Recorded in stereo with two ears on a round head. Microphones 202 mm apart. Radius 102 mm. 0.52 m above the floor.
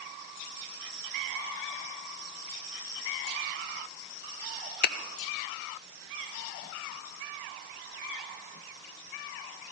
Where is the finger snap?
45° left (ahead or behind), 0.9 m.